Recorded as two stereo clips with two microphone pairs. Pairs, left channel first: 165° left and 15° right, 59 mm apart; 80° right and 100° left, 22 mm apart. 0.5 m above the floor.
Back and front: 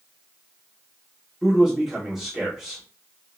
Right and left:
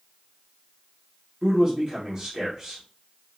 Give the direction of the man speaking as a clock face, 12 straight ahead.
10 o'clock.